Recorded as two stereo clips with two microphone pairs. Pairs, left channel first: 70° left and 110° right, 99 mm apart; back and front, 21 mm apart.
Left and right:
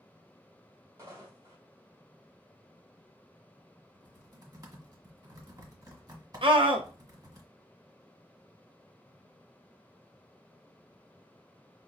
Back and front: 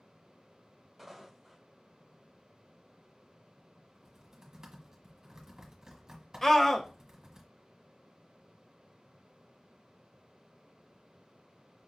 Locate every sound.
1.0 s footsteps: 80° right, 2 m
3.9 s typing on a keyboard: 60° right, 1.3 m
6.4 s a scream: 105° right, 0.8 m